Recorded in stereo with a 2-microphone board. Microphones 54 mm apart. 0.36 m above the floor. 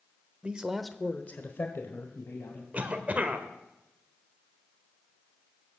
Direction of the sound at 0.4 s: 25° right (ahead or behind).